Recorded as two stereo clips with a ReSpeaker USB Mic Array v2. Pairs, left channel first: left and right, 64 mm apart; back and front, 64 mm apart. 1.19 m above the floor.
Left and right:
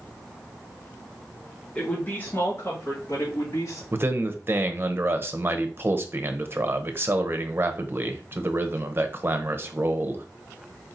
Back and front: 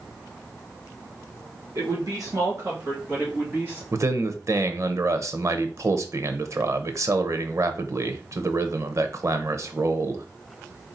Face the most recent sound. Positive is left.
turn(degrees=-40)